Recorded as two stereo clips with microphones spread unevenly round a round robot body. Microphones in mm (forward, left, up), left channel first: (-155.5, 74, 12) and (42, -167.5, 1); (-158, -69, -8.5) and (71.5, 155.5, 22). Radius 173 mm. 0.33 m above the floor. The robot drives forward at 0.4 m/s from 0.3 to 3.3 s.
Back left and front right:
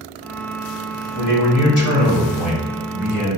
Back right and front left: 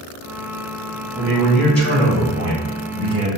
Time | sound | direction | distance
1.1 | a man speaking | 135° left | 1.7 m